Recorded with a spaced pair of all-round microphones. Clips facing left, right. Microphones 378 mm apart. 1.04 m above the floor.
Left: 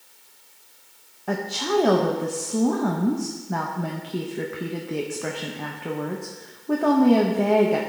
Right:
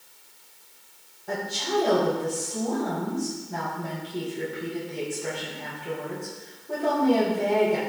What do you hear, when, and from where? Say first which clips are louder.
1.3 s a woman speaking: left 4 dB; 75° left (ahead or behind), 0.8 m